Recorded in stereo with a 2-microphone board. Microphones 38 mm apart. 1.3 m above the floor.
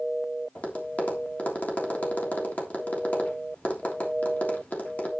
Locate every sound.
0.6 s tapping: 40° left (ahead or behind), 3 m